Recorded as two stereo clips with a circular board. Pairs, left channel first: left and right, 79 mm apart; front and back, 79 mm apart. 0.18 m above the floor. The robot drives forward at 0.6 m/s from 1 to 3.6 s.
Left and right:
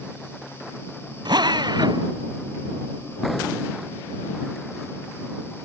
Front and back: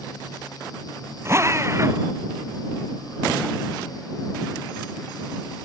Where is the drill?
120° right; by 2.1 s 125° right.